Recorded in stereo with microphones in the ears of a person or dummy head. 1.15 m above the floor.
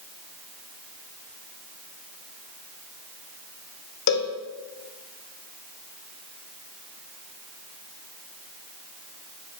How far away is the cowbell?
About 0.5 m.